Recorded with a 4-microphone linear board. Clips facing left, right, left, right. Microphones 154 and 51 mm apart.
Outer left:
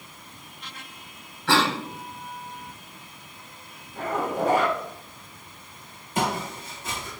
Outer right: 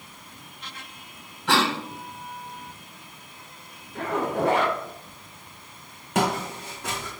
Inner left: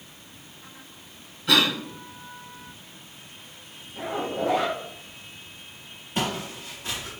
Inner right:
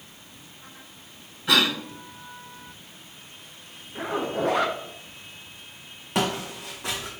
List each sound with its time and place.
1.5 s a cough: 15° right (ahead or behind), 1.8 m
4.0 s a zipper: 70° right (ahead or behind), 0.7 m
6.2 s footsteps: 80° right, 1.0 m